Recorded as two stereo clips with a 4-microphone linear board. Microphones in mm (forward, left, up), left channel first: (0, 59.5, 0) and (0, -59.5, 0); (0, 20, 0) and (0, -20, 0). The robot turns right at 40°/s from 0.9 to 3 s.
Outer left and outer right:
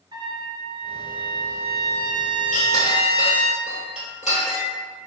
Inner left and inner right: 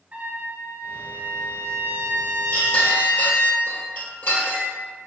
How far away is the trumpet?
About 0.7 m.